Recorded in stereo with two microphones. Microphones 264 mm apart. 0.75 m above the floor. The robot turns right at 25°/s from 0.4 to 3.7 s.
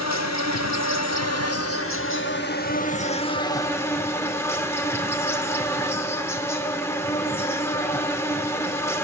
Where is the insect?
90° left, 0.8 m; by 9.1 s 170° left, 0.8 m.